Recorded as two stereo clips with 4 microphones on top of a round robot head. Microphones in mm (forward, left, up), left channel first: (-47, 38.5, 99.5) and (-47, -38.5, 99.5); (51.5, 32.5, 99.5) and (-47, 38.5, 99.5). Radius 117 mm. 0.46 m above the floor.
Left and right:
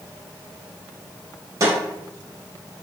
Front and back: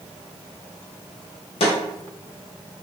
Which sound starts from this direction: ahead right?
A snare drum, at 1.6 s.